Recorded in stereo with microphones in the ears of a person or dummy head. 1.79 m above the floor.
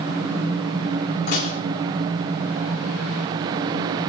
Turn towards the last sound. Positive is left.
turn(degrees=50)  # may be behind; listen again after turning